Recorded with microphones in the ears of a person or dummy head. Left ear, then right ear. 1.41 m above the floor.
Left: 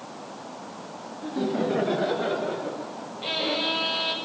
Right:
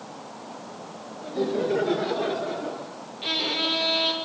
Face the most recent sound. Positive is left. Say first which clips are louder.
# right 1 dB
turn(degrees=-50)  # may be behind; listen again after turning